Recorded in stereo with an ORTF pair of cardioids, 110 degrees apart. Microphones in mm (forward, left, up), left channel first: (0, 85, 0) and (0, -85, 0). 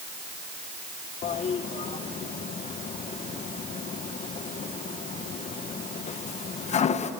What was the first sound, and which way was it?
A toilet flushing, 40° left.